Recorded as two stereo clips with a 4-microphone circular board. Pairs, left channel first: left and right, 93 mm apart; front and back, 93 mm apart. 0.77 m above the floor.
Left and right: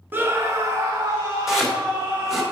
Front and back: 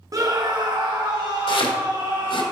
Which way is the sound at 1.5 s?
5° right.